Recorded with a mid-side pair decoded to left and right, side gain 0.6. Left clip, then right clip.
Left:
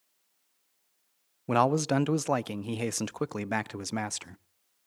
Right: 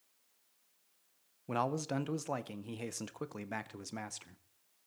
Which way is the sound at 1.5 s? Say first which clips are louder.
Left 10 dB; 50° left.